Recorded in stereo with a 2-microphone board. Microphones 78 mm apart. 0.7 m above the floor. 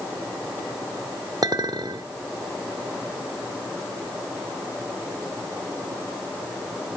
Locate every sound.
1.4 s a clink: 60° right (ahead or behind), 1.0 m